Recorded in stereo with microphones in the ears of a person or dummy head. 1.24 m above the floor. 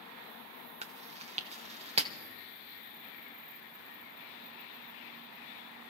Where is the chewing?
30° right (ahead or behind), 0.7 m.